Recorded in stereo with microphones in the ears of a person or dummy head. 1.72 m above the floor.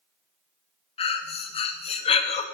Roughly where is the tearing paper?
No tearing paper in this recording.